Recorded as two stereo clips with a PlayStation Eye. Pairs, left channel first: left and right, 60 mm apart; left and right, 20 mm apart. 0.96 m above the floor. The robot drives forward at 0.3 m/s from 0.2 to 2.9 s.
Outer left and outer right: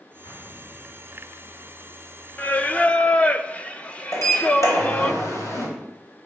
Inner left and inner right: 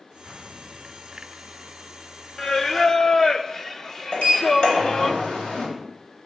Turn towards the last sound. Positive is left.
turn(degrees=65)  # may be behind; listen again after turning